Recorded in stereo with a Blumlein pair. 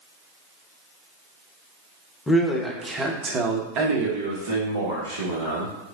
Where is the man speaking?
10° left, 1.0 m; by 5.8 s 75° right, 2.0 m.